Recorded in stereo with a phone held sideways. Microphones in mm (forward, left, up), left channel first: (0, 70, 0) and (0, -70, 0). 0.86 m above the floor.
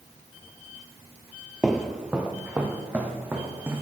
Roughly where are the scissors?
No scissors in this recording.